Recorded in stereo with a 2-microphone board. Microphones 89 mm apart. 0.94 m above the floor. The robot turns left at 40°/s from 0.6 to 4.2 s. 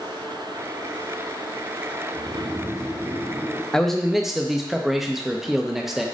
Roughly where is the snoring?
Behind right.